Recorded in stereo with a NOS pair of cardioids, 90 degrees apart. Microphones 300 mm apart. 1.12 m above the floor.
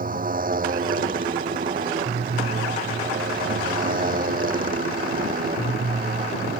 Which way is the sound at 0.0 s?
30° right.